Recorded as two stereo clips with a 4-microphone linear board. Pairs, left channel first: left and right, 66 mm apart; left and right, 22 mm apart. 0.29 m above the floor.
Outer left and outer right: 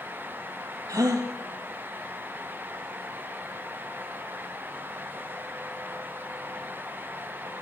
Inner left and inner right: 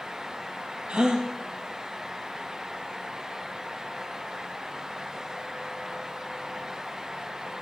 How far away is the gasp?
About 1.9 m.